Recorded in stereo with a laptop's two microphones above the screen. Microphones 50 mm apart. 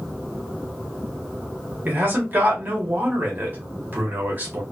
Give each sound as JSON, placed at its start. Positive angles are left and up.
{"t": 1.9, "sound": "a man speaking", "side_deg": -40, "distance_m": 0.9}